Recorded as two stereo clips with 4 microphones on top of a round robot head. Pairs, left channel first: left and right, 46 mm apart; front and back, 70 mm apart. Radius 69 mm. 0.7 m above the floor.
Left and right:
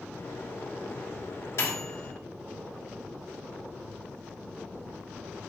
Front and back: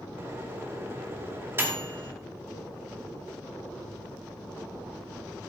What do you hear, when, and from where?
0.2 s a microwave: 125° left, 3 m